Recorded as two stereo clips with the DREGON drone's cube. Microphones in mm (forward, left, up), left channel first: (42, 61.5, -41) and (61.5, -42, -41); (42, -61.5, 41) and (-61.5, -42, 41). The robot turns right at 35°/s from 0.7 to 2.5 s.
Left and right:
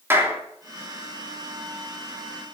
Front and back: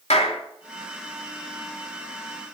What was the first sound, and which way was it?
A clap, 10° right.